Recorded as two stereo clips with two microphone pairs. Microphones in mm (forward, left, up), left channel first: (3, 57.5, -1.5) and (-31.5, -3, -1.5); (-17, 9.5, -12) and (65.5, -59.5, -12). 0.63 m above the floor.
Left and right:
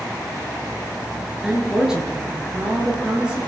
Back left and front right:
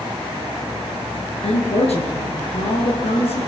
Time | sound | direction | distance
1.4 | a woman speaking | 160° left | 9.5 m